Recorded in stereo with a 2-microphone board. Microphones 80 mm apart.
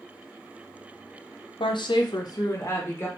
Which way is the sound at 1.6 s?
80° left.